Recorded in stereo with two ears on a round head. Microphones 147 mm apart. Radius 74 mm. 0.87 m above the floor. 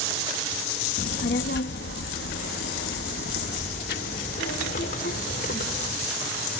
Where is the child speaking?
55° left (ahead or behind), 0.8 m; by 6.0 s 45° left (ahead or behind), 3 m.